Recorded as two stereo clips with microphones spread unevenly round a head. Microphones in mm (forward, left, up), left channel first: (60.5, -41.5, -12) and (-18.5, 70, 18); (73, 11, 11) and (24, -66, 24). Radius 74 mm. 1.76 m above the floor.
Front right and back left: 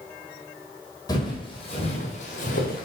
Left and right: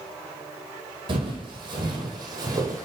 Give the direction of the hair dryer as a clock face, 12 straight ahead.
I don't hear a hair dryer.